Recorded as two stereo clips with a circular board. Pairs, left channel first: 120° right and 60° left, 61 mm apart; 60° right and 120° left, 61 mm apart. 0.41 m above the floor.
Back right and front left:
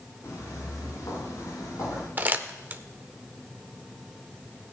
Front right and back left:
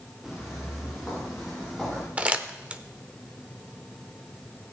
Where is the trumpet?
I don't hear a trumpet.